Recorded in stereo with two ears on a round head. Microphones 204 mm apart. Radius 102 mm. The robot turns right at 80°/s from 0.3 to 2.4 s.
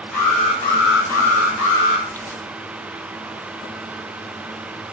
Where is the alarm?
5° left, 6 m; by 2.1 s 145° left, 6 m.